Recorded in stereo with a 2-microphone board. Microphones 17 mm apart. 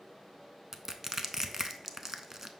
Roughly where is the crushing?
Right.